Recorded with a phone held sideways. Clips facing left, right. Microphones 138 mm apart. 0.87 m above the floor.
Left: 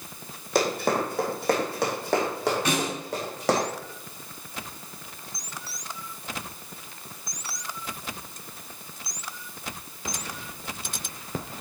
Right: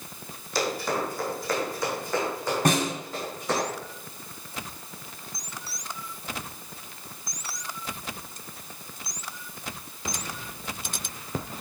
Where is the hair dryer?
I don't hear a hair dryer.